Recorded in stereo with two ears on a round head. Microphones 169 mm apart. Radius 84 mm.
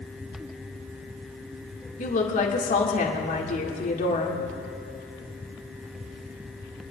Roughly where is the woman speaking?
Left.